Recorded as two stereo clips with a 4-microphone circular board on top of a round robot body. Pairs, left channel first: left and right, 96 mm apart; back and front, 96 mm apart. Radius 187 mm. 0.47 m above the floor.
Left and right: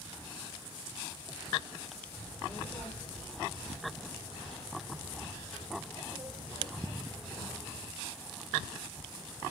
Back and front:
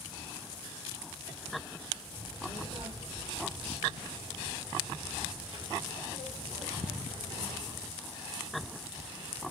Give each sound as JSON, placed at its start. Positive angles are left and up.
{"t": 2.1, "sound": "a child speaking", "azimuth_deg": -5, "distance_m": 3.5}